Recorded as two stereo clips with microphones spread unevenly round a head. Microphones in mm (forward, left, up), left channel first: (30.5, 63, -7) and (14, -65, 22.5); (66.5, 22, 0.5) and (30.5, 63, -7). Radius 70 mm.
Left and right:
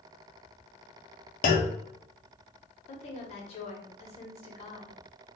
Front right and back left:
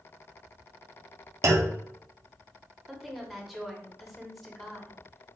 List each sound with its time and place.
1.4 s a clunk: 115° left, 0.5 m
2.9 s a woman speaking: 35° left, 1.0 m